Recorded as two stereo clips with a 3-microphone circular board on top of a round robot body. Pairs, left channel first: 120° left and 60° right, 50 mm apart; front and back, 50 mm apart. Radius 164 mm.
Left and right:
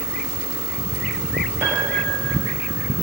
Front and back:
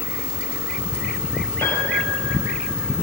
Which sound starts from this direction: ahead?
A piano, at 1.6 s.